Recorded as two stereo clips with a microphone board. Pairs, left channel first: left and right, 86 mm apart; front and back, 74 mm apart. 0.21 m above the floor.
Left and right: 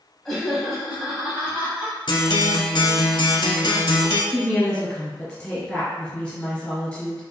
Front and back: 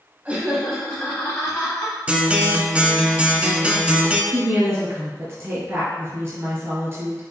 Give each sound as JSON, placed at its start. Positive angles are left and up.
{"t": 0.2, "sound": "laughter", "azimuth_deg": 165, "distance_m": 1.0}
{"t": 2.1, "sound": "a guitar", "azimuth_deg": 105, "distance_m": 0.5}
{"t": 4.3, "sound": "a woman speaking", "azimuth_deg": 165, "distance_m": 1.5}